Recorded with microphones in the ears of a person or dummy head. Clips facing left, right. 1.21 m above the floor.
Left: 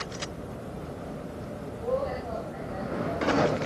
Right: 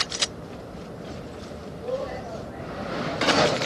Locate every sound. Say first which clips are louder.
1.8 s a woman speaking: left 1 dB; 15° right (ahead or behind), 7.5 m; by 3.6 s 5° right (ahead or behind), 7 m